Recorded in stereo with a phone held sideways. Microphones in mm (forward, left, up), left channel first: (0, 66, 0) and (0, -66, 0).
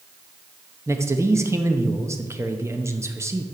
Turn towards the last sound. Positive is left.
turn(degrees=-20)  # may be behind; listen again after turning